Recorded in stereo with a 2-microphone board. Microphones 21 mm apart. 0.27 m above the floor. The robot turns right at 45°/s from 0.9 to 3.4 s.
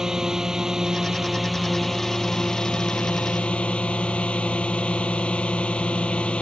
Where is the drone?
30° right; by 6.4 s 85° left.